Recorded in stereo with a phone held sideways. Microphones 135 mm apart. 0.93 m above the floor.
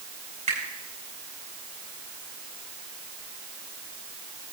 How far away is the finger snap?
About 6 m.